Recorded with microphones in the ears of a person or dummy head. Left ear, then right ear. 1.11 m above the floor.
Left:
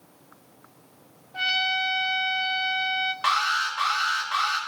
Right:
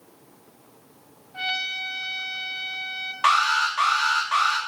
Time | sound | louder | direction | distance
1.3 | a trumpet | left 3 dB | 10° left (ahead or behind) | 0.6 m
3.2 | an alarm | right 6 dB | 30° right (ahead or behind) | 1.9 m